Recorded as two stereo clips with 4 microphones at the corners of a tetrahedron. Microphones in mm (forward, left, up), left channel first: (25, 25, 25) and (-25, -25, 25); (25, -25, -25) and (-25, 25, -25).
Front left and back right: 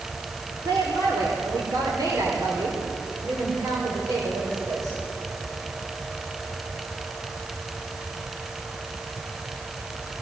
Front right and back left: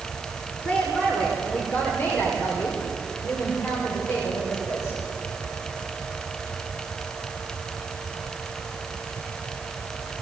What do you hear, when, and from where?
0.7 s a woman speaking: 110° right, 4 m; by 5.0 s 95° right, 6 m